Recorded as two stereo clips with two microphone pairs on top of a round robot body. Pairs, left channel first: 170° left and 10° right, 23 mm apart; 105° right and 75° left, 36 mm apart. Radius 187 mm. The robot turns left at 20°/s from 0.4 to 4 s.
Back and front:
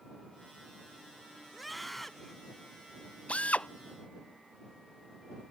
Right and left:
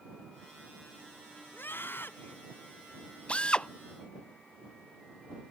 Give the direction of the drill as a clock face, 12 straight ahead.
5 o'clock.